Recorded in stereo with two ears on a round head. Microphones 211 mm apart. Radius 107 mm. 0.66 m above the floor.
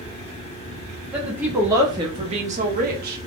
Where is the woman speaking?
5° right (ahead or behind), 1.4 m; by 3.2 s 45° right (ahead or behind), 1.0 m.